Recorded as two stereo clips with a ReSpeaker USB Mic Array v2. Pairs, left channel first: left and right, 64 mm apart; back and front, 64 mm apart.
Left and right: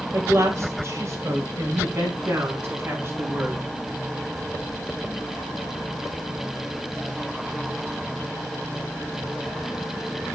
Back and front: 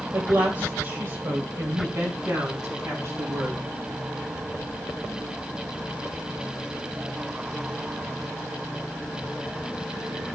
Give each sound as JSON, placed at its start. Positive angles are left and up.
{"t": 0.1, "sound": "a woman speaking", "azimuth_deg": -50, "distance_m": 2.5}